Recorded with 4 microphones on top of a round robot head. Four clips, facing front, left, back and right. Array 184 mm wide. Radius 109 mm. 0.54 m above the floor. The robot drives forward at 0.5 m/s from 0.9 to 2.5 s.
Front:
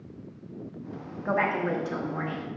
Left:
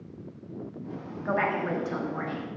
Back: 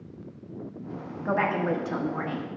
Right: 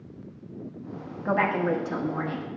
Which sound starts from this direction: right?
A woman speaking, at 1.2 s.